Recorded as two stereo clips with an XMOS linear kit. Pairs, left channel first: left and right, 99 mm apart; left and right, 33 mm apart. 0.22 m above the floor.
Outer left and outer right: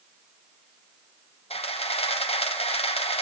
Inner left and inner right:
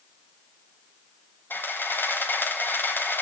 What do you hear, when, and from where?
1.5 s a camera shutter: 70° left (ahead or behind), 1.4 m